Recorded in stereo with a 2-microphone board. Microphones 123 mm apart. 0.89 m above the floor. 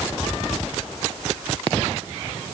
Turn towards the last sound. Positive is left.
No sound to turn to.